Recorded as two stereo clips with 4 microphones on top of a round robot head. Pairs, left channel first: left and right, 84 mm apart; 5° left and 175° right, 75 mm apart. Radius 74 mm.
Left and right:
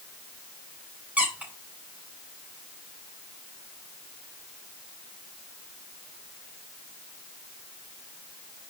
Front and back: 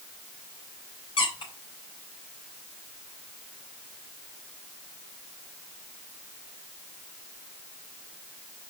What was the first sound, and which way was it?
A squeak, 15° right.